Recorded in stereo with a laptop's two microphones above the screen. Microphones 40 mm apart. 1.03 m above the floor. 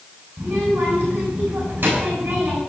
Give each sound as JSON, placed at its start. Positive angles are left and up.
{"t": 0.4, "sound": "a child speaking", "side_deg": -55, "distance_m": 9.5}